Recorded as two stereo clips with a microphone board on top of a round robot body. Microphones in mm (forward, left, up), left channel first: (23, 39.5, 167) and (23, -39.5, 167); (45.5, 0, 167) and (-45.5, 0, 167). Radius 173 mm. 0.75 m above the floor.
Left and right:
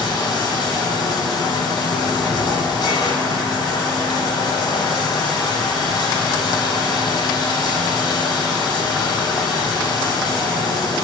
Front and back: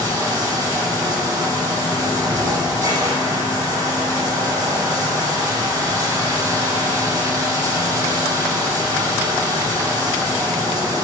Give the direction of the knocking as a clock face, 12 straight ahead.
No knocking in this recording.